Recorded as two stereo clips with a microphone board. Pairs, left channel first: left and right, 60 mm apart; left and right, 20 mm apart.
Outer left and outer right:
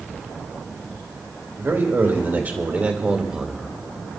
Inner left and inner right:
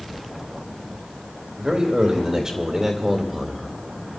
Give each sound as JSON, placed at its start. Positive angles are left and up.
{"t": 1.6, "sound": "a man speaking", "side_deg": -45, "distance_m": 3.0}